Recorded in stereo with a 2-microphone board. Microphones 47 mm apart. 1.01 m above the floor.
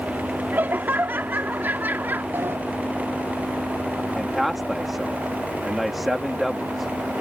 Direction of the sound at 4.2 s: Centre (ahead or behind).